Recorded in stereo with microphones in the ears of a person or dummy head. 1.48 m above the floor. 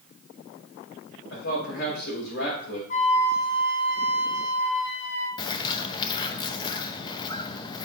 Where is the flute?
45° left (ahead or behind), 2.5 m.